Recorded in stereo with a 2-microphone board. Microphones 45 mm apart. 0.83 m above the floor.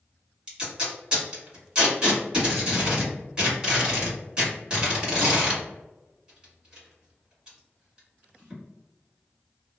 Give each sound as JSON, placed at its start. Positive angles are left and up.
{"t": 0.5, "sound": "tape being pulled", "side_deg": -25, "distance_m": 1.9}